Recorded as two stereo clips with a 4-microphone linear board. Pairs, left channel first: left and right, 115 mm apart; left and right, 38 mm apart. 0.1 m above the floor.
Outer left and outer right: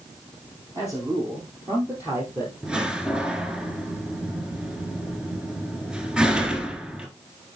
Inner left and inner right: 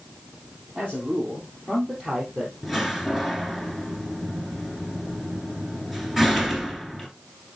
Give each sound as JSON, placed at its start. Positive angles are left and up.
{"t": 0.8, "sound": "a man speaking", "side_deg": -30, "distance_m": 3.5}
{"t": 2.6, "sound": "a door slam", "side_deg": -5, "distance_m": 1.2}